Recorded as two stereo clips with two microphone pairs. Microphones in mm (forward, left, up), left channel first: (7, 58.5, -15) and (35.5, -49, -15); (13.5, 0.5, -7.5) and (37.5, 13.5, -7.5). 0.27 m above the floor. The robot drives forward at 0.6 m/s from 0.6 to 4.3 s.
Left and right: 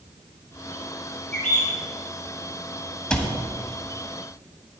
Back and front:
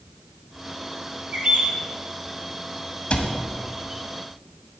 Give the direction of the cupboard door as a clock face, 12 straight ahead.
6 o'clock.